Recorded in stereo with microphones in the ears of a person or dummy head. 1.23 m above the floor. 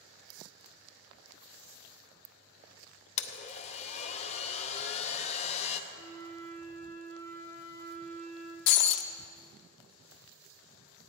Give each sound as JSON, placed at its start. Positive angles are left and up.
{"t": 3.2, "sound": "a blender", "side_deg": 35, "distance_m": 0.7}
{"t": 5.9, "sound": "a flute", "side_deg": 15, "distance_m": 4.0}
{"t": 8.7, "sound": "breaking glass", "side_deg": 55, "distance_m": 0.6}